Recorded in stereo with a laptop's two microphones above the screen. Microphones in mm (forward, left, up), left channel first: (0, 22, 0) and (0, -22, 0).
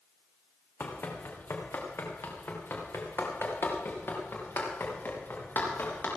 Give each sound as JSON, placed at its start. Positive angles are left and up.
{"t": 0.8, "sound": "running footsteps", "side_deg": 70, "distance_m": 2.5}